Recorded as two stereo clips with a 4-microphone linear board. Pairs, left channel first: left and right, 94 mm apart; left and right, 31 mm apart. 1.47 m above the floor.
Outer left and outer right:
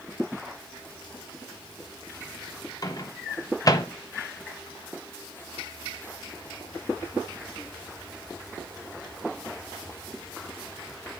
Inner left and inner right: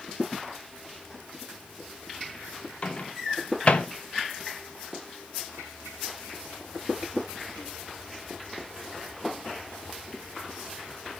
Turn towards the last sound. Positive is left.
turn(degrees=40)  # may be behind; listen again after turning